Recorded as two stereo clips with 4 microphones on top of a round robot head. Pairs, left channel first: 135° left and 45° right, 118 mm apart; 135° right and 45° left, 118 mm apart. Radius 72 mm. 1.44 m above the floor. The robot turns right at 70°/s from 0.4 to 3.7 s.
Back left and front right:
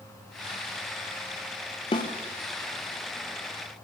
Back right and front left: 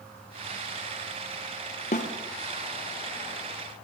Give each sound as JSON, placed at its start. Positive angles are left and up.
{"t": 1.9, "sound": "a snare drum", "azimuth_deg": -170, "distance_m": 0.9}